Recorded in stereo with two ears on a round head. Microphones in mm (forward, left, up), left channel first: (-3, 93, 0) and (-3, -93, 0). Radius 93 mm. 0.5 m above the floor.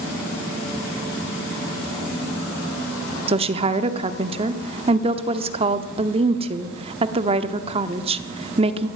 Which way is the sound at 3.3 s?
30° right (ahead or behind).